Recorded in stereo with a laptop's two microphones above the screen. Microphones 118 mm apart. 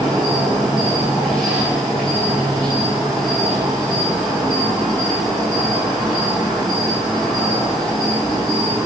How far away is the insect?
About 6 m.